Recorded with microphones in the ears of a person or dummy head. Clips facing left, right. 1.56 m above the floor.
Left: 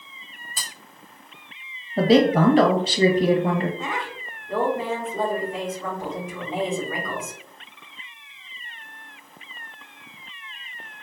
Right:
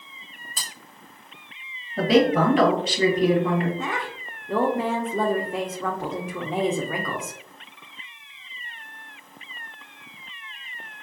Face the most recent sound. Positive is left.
turn(degrees=-50)  # may be behind; listen again after turning